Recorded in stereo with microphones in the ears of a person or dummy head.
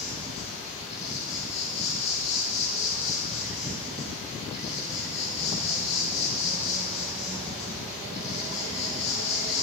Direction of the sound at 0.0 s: 35° left (ahead or behind).